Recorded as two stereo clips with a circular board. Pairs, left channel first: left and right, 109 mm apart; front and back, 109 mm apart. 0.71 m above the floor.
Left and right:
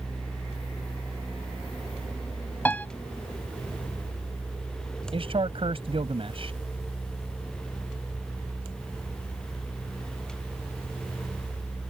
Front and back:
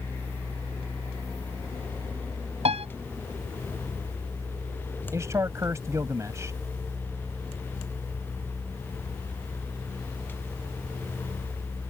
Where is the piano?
165° left.